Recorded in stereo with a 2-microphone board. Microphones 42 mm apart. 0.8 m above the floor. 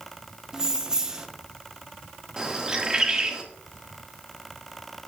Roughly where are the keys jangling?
Centre.